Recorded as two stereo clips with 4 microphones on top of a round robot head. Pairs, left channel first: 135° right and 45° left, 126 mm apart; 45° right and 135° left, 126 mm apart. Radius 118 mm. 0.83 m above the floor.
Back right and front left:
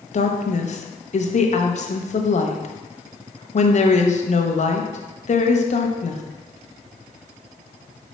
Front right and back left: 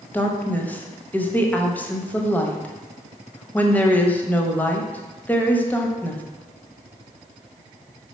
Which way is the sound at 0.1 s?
120° right.